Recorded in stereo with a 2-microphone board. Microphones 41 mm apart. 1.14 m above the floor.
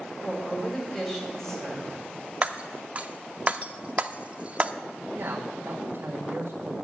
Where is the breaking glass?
30° right (ahead or behind), 0.7 m.